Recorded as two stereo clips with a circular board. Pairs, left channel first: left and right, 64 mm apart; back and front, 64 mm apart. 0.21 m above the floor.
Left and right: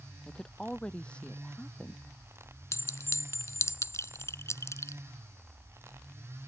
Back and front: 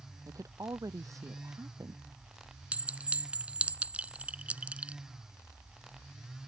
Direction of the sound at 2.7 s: 65° left.